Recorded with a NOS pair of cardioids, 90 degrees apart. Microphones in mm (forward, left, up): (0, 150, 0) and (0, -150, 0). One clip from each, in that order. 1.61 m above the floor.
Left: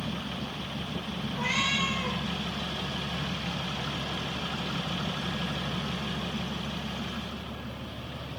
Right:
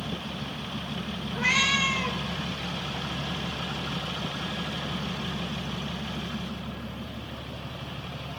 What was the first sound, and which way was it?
A cat meowing, 55° right.